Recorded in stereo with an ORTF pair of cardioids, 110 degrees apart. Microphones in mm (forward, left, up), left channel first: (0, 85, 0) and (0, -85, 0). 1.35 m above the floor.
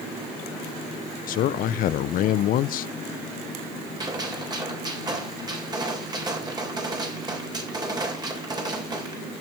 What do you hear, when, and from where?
1.3 s a man speaking: 55° left, 0.5 m
4.0 s a gunshot: 25° right, 3.5 m